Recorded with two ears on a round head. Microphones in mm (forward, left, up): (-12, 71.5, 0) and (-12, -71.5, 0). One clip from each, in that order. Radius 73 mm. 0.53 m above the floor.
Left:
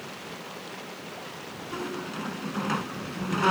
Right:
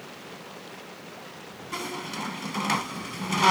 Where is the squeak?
80° right.